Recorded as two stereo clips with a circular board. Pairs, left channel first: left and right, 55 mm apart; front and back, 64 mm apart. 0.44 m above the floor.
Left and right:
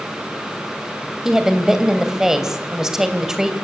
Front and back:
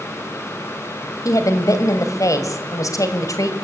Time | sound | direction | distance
1.2 | a woman speaking | 10° right | 2.5 m